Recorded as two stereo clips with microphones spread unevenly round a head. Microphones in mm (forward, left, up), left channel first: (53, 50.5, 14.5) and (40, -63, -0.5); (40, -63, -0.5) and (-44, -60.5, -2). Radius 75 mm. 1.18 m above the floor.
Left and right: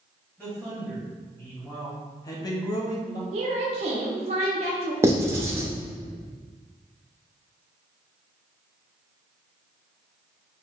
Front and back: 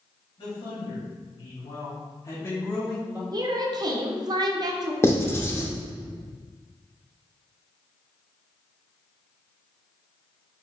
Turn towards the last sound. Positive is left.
turn(degrees=-30)